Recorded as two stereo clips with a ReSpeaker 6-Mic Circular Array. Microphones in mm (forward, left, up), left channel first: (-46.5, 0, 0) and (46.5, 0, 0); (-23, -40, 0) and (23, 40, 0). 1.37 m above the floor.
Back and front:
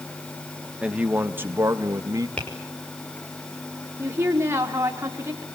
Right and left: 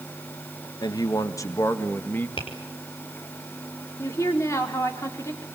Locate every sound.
0.8 s a man speaking: 80° right, 1.7 m; by 2.3 s 50° right, 2 m
2.4 s tapping: 105° right, 6 m
4.0 s a woman speaking: 65° right, 4 m